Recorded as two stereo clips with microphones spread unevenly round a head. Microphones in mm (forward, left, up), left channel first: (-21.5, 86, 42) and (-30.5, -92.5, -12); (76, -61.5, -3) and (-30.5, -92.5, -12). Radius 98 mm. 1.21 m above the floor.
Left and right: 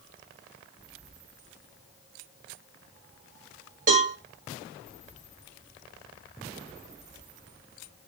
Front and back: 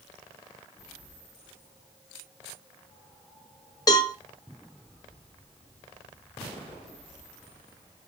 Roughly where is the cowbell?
Ahead right.